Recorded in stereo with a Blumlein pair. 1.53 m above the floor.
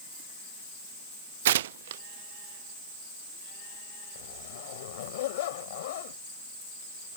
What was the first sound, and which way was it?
Tearing paper, 55° right.